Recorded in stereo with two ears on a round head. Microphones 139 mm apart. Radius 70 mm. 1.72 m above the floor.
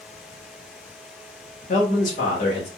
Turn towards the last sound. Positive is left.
turn(degrees=50)  # may be behind; listen again after turning